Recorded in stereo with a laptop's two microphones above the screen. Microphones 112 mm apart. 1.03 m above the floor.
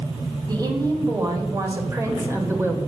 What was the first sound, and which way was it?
A woman speaking, 35° right (ahead or behind).